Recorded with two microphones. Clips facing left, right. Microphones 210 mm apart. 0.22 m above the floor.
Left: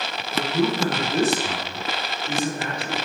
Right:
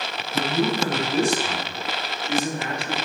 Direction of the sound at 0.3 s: 25° right (ahead or behind).